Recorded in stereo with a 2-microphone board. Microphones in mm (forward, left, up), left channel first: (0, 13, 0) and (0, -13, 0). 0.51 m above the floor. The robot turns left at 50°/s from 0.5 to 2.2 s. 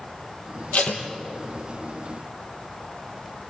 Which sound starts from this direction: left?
Tape being pulled, at 0.7 s.